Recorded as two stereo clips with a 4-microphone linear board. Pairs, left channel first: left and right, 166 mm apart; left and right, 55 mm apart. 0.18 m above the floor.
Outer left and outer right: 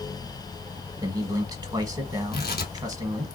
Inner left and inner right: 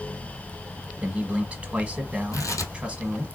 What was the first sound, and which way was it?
A man speaking, 25° right (ahead or behind).